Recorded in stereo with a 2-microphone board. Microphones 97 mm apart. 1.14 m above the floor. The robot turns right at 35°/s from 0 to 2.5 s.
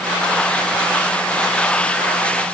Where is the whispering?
I don't hear whispering.